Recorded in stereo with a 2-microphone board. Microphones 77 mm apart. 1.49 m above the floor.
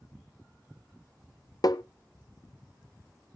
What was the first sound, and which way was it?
Tapping, 55° left (ahead or behind).